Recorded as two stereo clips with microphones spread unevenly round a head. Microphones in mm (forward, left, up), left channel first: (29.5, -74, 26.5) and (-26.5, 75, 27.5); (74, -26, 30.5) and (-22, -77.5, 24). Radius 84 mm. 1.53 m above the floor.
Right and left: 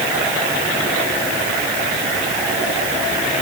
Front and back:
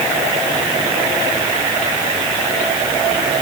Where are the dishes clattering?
I don't hear dishes clattering.